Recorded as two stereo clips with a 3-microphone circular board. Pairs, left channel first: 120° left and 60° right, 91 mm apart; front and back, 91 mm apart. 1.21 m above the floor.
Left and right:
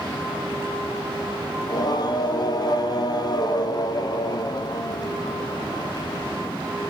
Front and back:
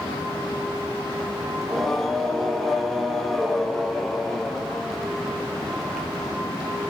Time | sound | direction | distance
1.6 | singing | 85° left | 0.6 m